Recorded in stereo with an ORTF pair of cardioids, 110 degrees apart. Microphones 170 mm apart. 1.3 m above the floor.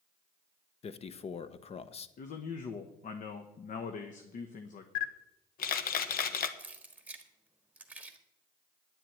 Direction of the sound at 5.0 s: 60° left.